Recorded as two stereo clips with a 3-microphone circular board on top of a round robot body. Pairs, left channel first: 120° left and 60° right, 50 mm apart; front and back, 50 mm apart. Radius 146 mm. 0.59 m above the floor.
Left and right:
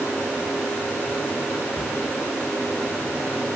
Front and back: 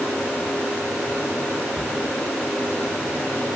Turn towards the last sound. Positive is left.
turn(degrees=130)